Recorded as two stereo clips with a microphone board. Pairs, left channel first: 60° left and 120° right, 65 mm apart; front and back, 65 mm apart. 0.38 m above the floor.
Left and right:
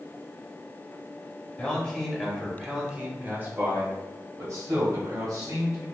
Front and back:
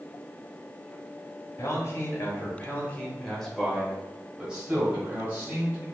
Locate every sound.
1.6 s a man speaking: 15° right, 1.3 m; by 5.8 s 125° right, 1.9 m